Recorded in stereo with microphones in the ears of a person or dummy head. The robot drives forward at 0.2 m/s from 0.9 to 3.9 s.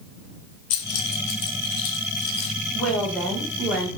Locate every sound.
0.7 s keys jangling: 60° left (ahead or behind), 1.4 m; by 2.5 s 50° left (ahead or behind), 1.5 m
2.7 s a woman speaking: centre (ahead or behind), 1.2 m